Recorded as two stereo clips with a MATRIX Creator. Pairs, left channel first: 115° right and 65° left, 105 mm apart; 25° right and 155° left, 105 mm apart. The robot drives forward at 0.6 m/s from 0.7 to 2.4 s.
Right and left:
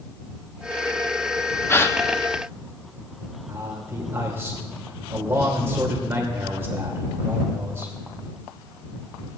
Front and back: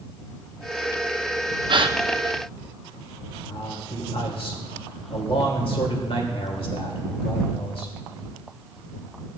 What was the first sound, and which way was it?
A gasp, 175° right.